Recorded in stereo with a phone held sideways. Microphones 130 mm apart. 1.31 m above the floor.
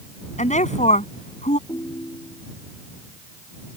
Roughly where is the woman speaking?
Left.